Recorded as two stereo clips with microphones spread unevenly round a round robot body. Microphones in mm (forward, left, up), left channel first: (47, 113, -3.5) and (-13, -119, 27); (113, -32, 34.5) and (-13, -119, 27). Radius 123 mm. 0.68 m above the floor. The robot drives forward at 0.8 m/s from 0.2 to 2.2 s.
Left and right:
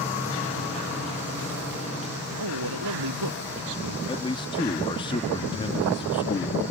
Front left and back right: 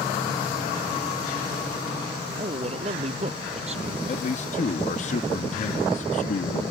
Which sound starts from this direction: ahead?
A man speaking, at 4.1 s.